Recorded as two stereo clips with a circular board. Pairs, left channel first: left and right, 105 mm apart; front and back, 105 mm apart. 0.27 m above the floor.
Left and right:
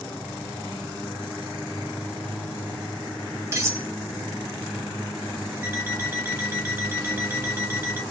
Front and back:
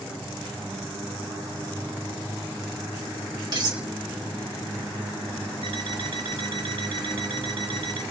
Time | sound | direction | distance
3.5 | cutlery clinking | 145° right | 0.9 m
5.6 | an alarm clock | 155° right | 1.7 m